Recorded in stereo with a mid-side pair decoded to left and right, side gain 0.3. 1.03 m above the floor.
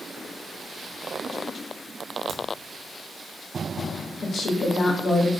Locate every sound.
2.3 s a crack: 70° right, 0.6 m
4.2 s a woman speaking: 65° left, 0.6 m